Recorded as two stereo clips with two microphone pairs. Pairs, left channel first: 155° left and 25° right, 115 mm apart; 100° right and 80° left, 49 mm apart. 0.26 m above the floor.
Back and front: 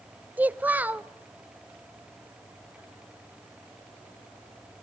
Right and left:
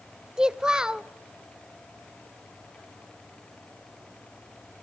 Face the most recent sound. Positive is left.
turn(degrees=35)